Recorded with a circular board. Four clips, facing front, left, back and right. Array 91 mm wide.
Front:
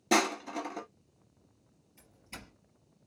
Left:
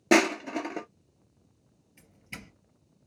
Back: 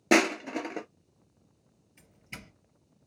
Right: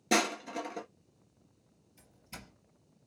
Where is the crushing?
135° left, 0.5 m.